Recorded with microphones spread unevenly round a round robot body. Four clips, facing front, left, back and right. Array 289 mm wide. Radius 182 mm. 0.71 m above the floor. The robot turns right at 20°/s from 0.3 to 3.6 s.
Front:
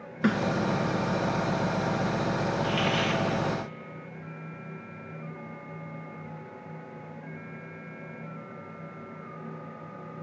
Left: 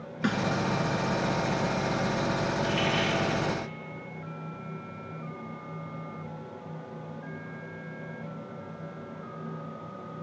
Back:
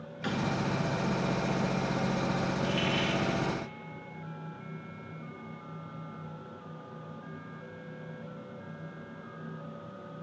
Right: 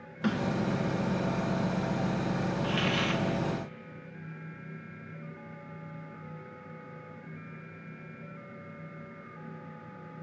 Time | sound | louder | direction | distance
0.2 | a snare drum | left 2 dB, front 7 dB | 20° left | 2.5 m
2.6 | a hiss | left 2 dB, front 3 dB | 100° right | 0.9 m